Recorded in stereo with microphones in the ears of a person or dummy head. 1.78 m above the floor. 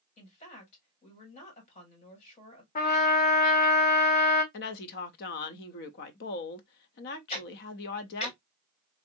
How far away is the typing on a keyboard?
I don't hear typing on a keyboard.